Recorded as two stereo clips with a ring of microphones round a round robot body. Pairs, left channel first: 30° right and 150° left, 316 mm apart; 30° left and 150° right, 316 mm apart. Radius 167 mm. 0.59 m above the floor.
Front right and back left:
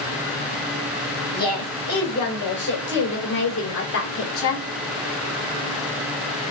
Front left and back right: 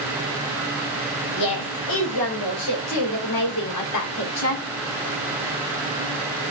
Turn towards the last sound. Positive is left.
turn(degrees=0)